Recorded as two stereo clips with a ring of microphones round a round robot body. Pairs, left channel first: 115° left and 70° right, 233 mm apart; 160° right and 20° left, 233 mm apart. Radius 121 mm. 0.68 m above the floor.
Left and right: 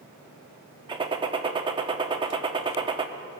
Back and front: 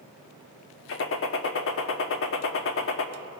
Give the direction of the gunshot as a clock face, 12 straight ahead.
5 o'clock.